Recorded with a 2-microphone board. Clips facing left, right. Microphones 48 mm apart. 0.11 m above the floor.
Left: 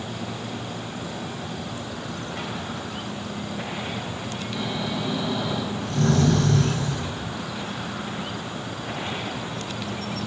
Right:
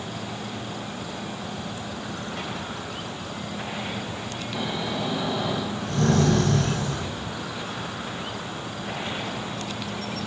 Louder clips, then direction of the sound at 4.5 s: Even; 40° right (ahead or behind).